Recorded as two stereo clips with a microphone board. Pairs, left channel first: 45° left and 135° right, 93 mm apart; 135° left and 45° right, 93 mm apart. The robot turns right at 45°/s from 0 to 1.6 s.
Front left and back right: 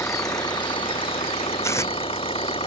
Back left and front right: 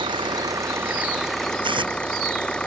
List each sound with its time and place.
0.0 s an engine running: 20° right; by 2.7 s 55° left
1.6 s tearing paper: 15° right